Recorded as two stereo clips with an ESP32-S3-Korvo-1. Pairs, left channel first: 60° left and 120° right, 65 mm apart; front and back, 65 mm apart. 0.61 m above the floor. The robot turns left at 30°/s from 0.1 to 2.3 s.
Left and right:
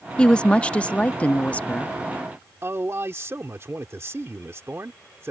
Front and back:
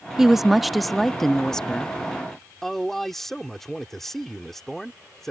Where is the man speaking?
85° right.